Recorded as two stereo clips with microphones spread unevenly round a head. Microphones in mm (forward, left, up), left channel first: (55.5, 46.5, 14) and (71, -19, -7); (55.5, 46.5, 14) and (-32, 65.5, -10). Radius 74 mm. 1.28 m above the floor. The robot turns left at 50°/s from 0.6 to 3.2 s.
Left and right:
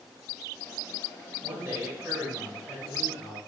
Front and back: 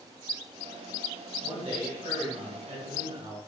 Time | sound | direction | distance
1.4 | a man speaking | 130° right | 4.5 m